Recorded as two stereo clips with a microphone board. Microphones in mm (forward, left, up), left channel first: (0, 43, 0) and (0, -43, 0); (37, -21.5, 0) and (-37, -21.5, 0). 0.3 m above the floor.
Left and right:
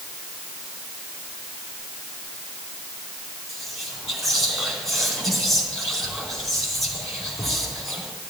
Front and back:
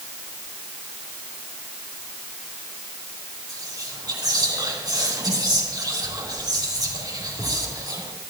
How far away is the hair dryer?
I don't hear a hair dryer.